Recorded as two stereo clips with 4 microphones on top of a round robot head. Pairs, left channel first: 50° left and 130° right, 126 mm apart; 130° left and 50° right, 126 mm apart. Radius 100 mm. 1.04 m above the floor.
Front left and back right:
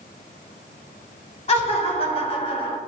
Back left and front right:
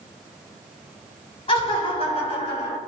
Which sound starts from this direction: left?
Laughter, at 1.5 s.